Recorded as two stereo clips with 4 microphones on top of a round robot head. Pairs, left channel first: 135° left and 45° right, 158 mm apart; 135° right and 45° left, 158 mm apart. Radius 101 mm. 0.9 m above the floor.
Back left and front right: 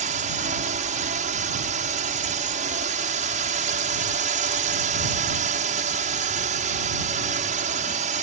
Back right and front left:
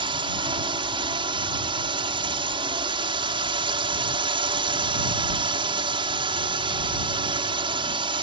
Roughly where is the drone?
Ahead.